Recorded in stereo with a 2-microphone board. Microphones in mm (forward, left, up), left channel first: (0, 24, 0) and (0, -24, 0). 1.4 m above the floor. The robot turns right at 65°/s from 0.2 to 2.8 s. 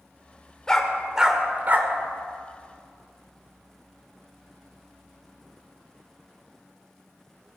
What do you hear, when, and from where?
0.7 s a dog barking: 15° left (ahead or behind), 1.7 m; by 1.9 s 50° right (ahead or behind), 1.7 m